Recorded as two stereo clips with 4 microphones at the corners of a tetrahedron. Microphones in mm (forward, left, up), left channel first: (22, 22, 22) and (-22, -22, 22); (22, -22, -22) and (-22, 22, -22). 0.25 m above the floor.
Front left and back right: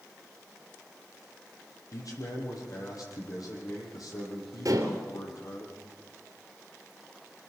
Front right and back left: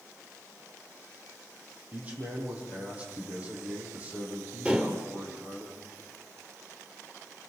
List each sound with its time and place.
1.9 s a man speaking: 70° left, 8 m; by 5.7 s 65° left, 10.5 m
4.7 s dishes clattering: 155° right, 3 m